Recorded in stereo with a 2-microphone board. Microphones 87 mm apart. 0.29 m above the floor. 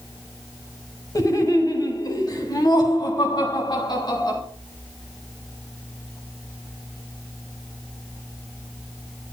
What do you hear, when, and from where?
1.1 s laughter: 45° left (ahead or behind), 2 m; by 4.4 s 55° left (ahead or behind), 4 m